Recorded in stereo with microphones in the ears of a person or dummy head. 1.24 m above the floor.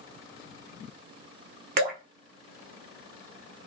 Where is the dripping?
50° right (ahead or behind), 0.8 m.